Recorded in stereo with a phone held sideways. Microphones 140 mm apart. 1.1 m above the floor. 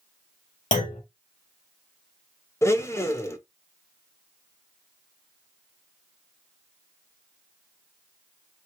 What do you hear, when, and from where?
0.7 s a clunk: 65° left (ahead or behind), 2.0 m
2.6 s a blender: 20° left (ahead or behind), 0.8 m